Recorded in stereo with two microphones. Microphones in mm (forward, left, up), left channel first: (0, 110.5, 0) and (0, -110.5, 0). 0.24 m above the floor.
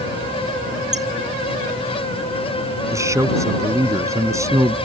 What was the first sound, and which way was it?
A squeak, 30° right (ahead or behind).